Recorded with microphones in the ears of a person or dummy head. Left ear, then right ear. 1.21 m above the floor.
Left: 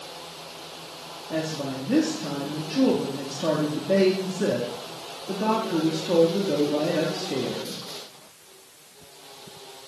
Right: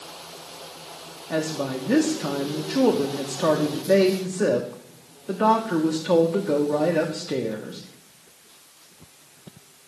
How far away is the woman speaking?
About 0.6 m.